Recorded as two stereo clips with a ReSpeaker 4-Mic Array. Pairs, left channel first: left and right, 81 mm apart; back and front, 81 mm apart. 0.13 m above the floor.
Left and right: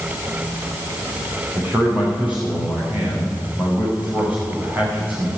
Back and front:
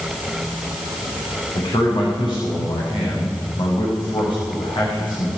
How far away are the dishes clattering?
No dishes clattering in this recording.